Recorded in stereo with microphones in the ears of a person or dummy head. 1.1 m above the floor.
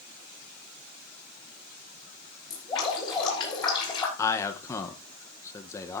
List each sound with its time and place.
2.5 s dripping: 25° left (ahead or behind), 5.5 m
4.2 s a man speaking: 15° left (ahead or behind), 1.0 m